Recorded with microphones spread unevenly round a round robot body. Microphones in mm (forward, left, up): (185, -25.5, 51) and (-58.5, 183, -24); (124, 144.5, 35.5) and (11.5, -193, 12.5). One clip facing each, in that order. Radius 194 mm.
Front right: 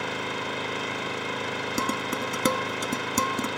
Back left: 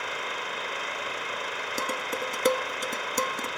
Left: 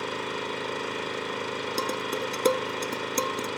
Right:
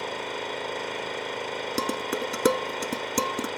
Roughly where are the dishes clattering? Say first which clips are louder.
Front right 2 dB, right 3 dB; ahead right.